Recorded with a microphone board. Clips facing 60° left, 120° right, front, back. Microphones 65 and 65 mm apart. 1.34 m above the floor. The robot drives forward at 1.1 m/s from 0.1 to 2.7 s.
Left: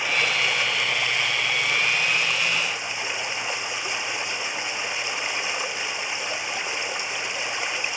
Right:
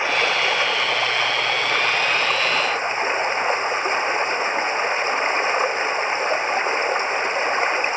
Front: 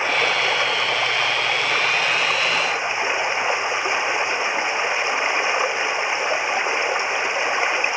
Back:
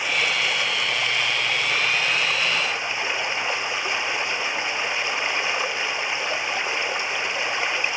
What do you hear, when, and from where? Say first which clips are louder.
0.0 s running water: right 4 dB, front 4 dB; 60° right; by 8.0 s 70° right